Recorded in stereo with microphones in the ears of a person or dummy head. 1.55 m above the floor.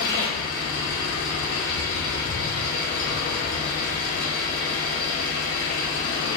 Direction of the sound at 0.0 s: 45° left (ahead or behind).